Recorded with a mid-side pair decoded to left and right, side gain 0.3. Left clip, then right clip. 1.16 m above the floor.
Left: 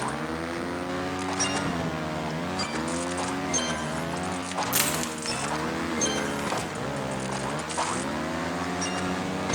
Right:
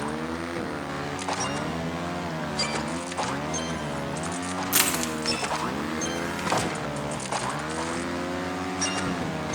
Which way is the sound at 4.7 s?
40° right.